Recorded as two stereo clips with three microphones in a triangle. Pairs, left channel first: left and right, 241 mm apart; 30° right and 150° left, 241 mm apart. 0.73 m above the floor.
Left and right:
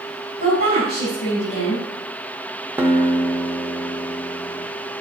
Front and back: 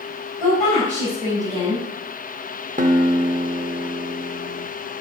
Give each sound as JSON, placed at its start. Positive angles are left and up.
{"t": 0.4, "sound": "a woman speaking", "azimuth_deg": 55, "distance_m": 4.0}
{"t": 2.8, "sound": "a guitar", "azimuth_deg": -170, "distance_m": 0.7}